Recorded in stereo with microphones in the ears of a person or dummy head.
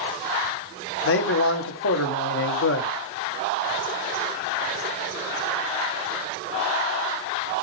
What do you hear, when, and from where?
1.1 s a man speaking: 75° left (ahead or behind), 1.4 m